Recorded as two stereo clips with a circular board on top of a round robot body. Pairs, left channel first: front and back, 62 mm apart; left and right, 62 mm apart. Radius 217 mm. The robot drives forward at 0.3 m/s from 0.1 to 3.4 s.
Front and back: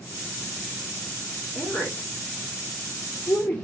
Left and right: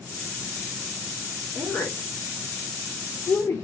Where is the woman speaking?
50° left, 2.5 m; by 3.6 s 65° left, 2 m.